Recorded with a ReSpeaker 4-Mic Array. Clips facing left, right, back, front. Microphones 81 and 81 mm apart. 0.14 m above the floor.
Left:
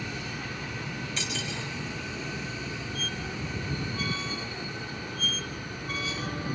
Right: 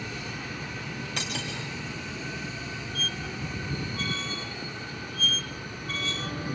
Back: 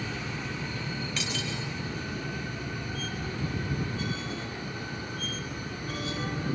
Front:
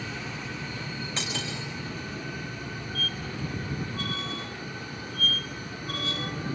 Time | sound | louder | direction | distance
1.2 | cutlery clinking | right 2 dB, even | 60° right | 7 m
3.0 | a squeak | even, front 1 dB | 10° left | 0.9 m